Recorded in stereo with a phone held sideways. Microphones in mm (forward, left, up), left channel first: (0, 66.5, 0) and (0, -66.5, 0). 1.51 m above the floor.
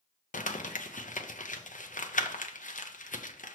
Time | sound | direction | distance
0.3 | crumpling | 75° left (ahead or behind) | 0.6 m